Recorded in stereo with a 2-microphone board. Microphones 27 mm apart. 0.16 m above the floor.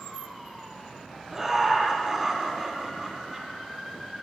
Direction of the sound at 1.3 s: 15° right (ahead or behind).